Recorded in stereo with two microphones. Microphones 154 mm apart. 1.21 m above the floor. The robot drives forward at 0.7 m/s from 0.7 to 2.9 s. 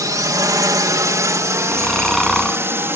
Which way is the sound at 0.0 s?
20° right (ahead or behind).